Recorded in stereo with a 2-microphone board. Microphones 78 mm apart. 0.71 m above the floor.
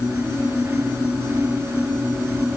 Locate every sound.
Only background noise.